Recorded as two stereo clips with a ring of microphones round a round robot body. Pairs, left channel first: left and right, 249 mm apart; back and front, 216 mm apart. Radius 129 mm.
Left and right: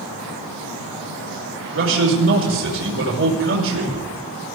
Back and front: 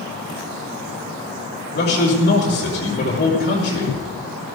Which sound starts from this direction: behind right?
A man speaking, at 1.7 s.